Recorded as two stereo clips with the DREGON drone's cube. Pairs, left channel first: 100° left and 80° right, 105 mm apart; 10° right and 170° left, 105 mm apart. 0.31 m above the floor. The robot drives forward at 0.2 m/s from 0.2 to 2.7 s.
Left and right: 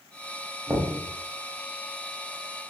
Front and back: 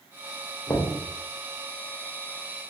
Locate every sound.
0.7 s knocking: 30° right, 0.6 m; by 0.9 s 35° right, 0.6 m